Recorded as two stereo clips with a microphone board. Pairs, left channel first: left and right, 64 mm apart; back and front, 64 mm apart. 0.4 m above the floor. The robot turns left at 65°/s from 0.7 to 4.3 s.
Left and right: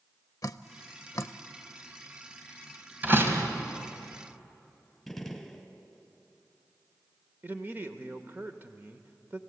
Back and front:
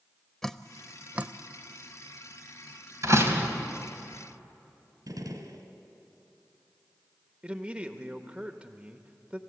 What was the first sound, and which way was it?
Dripping, 95° left.